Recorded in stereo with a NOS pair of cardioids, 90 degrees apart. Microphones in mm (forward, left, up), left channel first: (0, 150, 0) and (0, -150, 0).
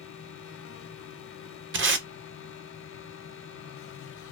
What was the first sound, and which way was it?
A fan, 50° left.